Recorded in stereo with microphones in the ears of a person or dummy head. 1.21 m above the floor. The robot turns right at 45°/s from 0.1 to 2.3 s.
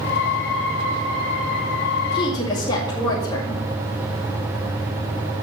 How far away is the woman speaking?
About 2.5 m.